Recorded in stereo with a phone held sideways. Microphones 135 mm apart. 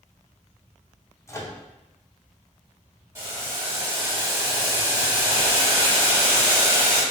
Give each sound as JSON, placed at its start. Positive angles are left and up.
{"t": 1.3, "sound": "a microwave", "side_deg": 20, "distance_m": 0.7}
{"t": 3.1, "sound": "boiling", "side_deg": -20, "distance_m": 2.0}